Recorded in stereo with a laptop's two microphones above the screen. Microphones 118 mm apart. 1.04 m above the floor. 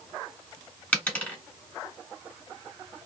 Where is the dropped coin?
10° left (ahead or behind), 1.3 m.